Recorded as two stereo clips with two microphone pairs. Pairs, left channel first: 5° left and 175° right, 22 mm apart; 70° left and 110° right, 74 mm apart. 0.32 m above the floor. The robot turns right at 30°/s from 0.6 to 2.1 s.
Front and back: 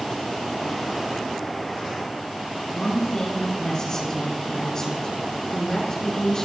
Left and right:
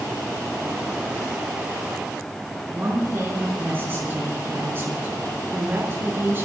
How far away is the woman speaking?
About 5 m.